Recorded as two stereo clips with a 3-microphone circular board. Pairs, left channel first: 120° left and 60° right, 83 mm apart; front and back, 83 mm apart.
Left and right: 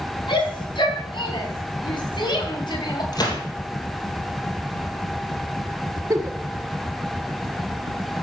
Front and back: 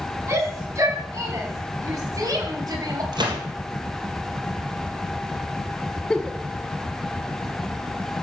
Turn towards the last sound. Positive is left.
turn(degrees=-75)